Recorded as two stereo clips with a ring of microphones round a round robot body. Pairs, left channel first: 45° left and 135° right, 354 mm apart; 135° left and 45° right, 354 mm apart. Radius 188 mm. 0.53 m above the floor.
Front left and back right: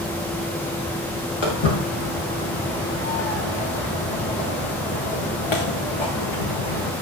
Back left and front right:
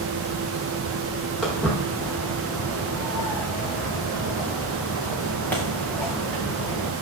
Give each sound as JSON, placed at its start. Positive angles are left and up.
{"t": 1.4, "sound": "footsteps", "azimuth_deg": 45, "distance_m": 7.0}